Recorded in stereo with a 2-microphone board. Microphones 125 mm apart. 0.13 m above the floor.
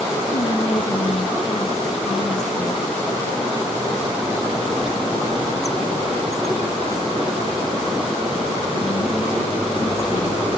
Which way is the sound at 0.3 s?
65° left (ahead or behind).